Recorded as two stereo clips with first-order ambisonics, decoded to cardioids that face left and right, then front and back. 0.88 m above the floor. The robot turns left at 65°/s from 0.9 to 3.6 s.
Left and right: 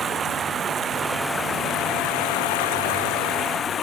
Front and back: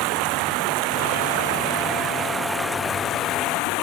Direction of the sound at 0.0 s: 160° right.